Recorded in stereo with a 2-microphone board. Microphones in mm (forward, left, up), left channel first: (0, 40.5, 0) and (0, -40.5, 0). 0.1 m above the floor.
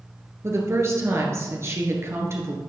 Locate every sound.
0.4 s a woman speaking: 35° right (ahead or behind), 1.4 m